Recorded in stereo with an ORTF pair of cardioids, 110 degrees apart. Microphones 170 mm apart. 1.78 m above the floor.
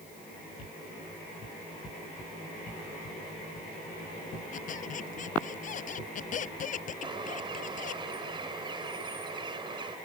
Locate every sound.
4.5 s a squeak: 50° left
7.0 s a bird: 30° right